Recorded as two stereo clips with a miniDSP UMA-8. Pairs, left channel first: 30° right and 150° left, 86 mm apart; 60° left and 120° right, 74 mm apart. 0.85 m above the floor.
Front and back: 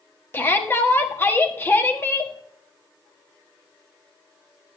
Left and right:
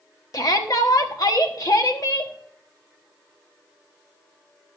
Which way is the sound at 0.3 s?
30° left.